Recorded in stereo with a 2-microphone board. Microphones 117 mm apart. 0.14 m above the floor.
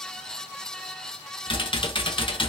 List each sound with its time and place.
1.5 s typing on a keyboard: 45° left (ahead or behind), 0.6 m